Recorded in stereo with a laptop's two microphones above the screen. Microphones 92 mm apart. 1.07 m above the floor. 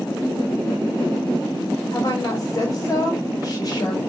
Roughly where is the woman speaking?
Left.